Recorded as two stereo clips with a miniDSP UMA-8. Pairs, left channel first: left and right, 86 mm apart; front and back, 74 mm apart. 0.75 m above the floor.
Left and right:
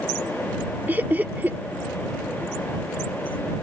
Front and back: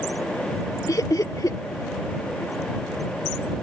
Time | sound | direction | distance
0.9 | laughter | 25° right | ?